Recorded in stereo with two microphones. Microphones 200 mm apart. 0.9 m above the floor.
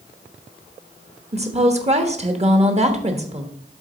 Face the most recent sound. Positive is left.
turn(degrees=-35)  # may be behind; listen again after turning